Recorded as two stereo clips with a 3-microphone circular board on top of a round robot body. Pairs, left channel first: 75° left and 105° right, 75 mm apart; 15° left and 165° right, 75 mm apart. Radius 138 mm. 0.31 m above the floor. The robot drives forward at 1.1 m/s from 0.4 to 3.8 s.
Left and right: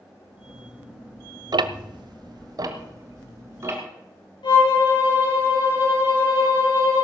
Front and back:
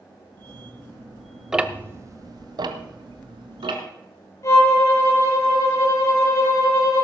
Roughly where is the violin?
Ahead left.